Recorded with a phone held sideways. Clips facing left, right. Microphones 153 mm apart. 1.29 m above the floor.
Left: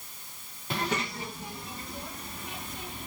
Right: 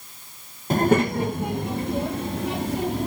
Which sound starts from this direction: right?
A child speaking, at 0.7 s.